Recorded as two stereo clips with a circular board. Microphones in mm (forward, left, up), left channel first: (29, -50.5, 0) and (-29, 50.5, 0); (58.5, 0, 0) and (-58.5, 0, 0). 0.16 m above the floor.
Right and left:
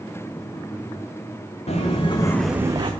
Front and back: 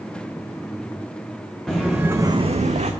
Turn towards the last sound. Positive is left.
turn(degrees=165)